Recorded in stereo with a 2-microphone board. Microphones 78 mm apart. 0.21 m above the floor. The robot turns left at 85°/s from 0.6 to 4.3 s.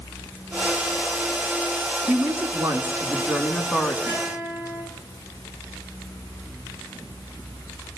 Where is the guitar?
20° right (ahead or behind), 10 m; by 4.8 s centre (ahead or behind), 10 m.